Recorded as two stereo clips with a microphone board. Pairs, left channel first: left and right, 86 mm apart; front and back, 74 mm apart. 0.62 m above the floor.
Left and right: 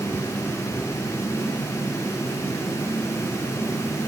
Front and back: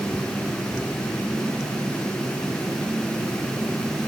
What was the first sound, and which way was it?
Only background noise.